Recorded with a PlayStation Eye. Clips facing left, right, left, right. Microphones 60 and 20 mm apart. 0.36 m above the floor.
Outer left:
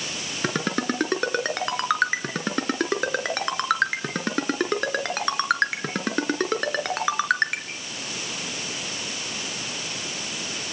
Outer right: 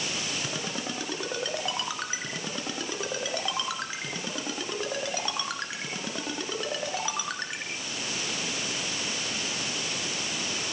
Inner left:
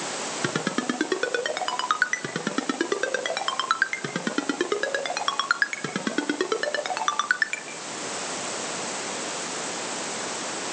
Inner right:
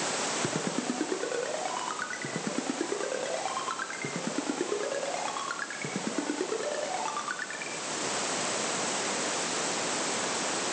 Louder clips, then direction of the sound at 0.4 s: Outer left 8 dB, inner left 5 dB; 65° left (ahead or behind).